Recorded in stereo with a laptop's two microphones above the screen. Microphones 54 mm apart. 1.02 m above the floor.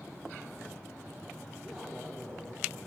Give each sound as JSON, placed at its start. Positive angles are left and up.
{"t": 1.6, "sound": "a man speaking", "side_deg": -10, "distance_m": 4.0}